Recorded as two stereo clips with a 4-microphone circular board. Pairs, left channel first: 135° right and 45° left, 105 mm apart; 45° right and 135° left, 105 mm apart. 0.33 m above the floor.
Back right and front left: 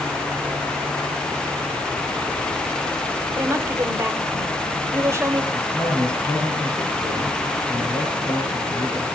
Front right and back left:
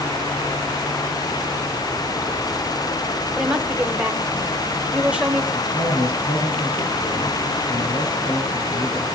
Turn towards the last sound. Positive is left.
turn(degrees=-55)